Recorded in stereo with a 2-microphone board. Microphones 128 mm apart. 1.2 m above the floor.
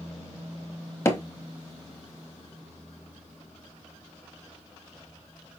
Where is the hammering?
20° left (ahead or behind), 0.8 m.